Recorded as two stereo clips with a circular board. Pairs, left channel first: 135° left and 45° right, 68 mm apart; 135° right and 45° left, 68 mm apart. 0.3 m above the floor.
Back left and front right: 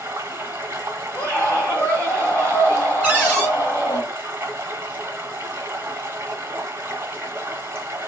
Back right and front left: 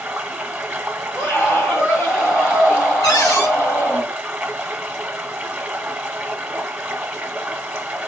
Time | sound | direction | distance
0.0 | running water | 15° right | 0.9 m
1.1 | a scream | 170° right | 1.3 m
3.0 | a cupboard door | 165° right | 2.5 m